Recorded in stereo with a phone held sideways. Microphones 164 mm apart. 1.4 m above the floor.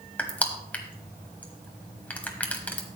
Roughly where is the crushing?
Centre.